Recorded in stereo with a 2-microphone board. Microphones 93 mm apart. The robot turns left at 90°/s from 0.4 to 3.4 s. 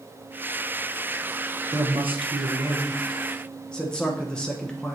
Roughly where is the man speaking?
Ahead right.